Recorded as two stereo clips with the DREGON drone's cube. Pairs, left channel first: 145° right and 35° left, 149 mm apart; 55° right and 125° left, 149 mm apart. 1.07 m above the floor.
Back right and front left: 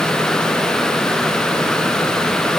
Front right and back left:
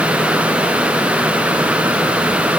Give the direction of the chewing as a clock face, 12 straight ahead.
I don't hear chewing.